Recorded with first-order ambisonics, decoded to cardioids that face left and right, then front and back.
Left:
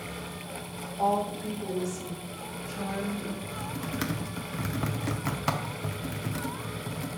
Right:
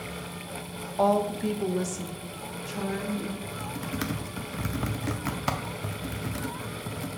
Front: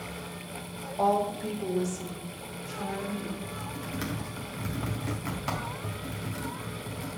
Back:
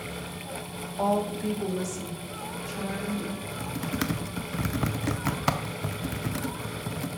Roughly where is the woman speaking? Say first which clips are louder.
Right 3 dB, front 1 dB; right.